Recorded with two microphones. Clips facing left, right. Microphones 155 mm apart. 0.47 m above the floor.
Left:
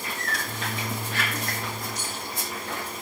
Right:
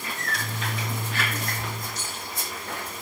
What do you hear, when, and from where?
0.2 s a microwave: 75° right (ahead or behind), 5 m
1.9 s cutlery clinking: 15° left (ahead or behind), 7 m